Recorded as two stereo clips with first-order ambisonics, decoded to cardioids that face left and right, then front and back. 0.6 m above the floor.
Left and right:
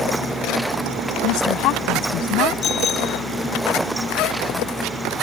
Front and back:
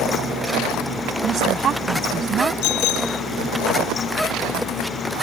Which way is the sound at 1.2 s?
120° left.